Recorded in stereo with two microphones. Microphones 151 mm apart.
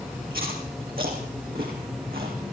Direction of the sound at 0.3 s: 80° right.